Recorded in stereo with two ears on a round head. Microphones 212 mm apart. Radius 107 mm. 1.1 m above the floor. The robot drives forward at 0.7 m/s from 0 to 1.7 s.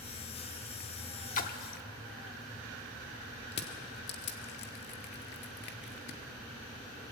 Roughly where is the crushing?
Left.